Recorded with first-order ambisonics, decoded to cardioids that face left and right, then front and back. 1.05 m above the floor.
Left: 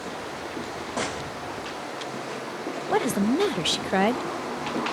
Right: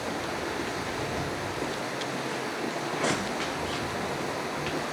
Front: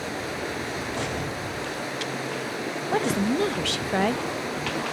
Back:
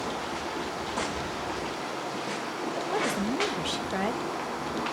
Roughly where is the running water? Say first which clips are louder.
Right 2 dB, front 2 dB; ahead.